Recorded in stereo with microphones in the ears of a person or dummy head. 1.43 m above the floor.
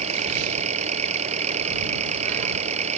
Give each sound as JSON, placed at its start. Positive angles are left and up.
{"t": 0.0, "sound": "an engine running", "side_deg": -35}